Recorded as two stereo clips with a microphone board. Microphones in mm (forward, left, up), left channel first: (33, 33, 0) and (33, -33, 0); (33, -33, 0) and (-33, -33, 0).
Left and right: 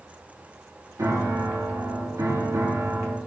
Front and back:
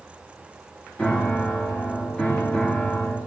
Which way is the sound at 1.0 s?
70° right.